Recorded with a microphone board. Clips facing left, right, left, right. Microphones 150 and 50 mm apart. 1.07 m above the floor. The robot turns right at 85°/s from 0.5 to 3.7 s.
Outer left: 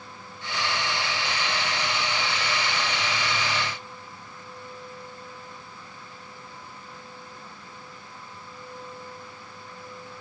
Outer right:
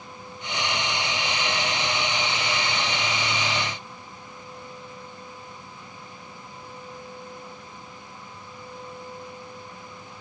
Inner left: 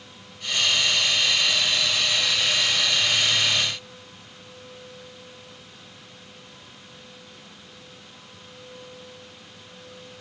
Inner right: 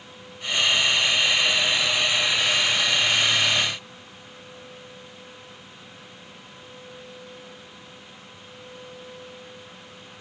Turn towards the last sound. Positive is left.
No sound to turn to.